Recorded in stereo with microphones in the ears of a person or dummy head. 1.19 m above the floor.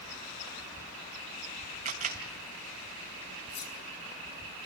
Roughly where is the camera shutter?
Right.